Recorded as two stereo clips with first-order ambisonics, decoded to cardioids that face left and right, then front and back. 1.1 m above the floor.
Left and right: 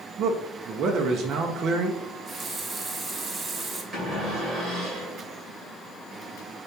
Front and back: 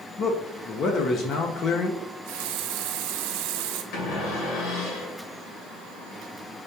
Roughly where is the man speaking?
Ahead right.